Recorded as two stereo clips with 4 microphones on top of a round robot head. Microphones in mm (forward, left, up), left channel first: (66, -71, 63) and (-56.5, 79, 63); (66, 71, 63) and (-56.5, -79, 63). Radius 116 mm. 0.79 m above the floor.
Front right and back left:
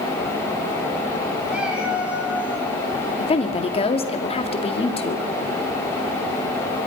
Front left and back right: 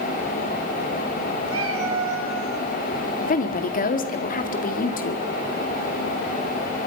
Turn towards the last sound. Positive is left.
turn(degrees=10)